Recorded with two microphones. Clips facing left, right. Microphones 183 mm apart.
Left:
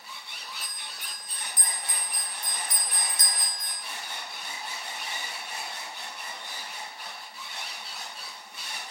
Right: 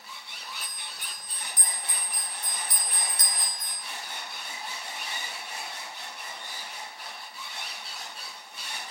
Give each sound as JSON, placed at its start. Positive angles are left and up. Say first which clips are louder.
{"t": 0.6, "sound": "a bell", "louder": "even", "side_deg": -55, "distance_m": 1.0}